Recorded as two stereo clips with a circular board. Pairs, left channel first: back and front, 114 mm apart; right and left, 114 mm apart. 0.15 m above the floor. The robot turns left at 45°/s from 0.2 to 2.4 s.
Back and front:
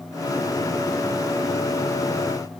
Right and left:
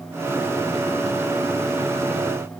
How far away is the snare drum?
I don't hear a snare drum.